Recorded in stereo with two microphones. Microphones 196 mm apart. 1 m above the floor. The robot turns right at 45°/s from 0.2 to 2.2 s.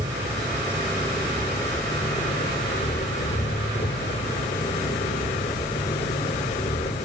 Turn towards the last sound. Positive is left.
turn(degrees=35)